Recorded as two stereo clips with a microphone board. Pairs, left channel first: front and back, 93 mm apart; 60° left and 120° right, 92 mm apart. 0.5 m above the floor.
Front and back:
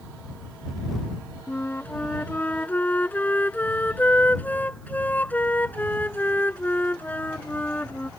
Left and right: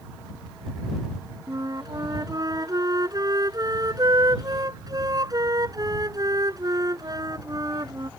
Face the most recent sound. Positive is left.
turn(degrees=-70)